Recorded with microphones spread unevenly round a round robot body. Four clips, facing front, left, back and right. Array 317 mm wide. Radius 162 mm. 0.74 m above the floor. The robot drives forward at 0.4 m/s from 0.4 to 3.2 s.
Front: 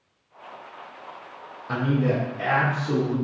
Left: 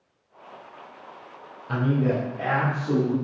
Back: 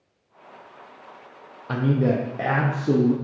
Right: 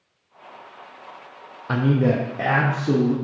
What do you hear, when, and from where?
1.7 s a man speaking: 85° right, 0.6 m; by 3.1 s 140° right, 0.8 m